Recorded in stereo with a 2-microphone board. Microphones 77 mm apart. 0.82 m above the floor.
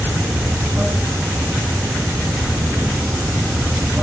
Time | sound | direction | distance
0.0 | running water | 15° right (ahead or behind) | 2.0 m